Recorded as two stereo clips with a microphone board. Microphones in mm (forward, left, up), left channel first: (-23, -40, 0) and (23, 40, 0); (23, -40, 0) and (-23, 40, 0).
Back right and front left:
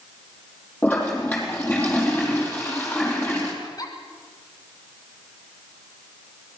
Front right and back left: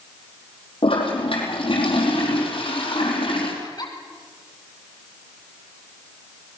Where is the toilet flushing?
50° right, 4.5 m.